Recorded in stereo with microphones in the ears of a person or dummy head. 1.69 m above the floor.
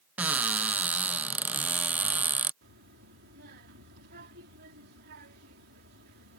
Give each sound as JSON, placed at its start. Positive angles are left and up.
{"t": 0.2, "sound": "a cupboard door", "side_deg": -10}
{"t": 2.6, "sound": "a child speaking", "side_deg": -60}